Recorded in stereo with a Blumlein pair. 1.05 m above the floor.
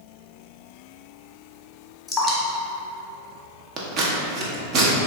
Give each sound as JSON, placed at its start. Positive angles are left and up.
{"t": 2.1, "sound": "dripping", "azimuth_deg": 20, "distance_m": 0.9}
{"t": 3.8, "sound": "scissors", "azimuth_deg": -35, "distance_m": 0.7}